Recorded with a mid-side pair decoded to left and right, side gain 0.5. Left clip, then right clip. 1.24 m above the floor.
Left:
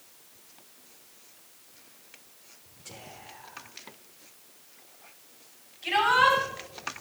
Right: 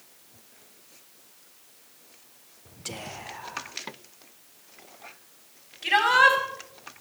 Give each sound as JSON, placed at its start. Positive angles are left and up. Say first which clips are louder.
{"t": 2.9, "sound": "whispering", "louder": "right 8 dB", "azimuth_deg": -70, "distance_m": 0.7}
{"t": 5.8, "sound": "a shout", "louder": "right 3 dB", "azimuth_deg": -60, "distance_m": 4.5}